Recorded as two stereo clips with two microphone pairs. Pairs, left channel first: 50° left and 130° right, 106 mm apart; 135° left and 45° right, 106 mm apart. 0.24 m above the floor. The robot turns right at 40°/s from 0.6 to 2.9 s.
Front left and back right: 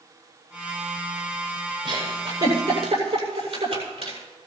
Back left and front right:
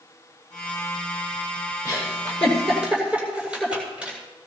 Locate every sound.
1.9 s a giggle: 170° right, 7.5 m; by 4.2 s 125° right, 7.5 m